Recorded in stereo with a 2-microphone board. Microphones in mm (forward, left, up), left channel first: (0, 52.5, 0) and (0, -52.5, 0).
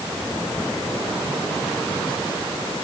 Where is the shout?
No shout in this recording.